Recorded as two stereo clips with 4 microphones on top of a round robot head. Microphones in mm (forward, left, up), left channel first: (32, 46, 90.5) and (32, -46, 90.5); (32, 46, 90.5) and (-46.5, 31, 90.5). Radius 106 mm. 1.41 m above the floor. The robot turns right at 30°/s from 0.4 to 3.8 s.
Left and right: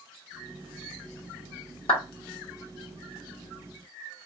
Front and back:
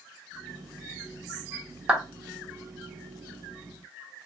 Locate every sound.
1.9 s a clap: 115° left, 1.5 m; by 2.0 s 120° left, 1.5 m